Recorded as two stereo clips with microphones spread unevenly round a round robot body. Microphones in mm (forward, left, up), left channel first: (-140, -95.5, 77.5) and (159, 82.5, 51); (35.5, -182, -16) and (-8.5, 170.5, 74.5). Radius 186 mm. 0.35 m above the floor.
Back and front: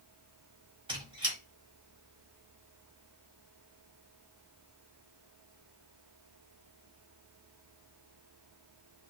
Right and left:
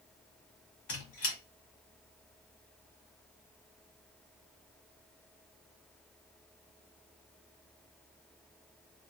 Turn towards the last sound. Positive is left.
turn(degrees=-45)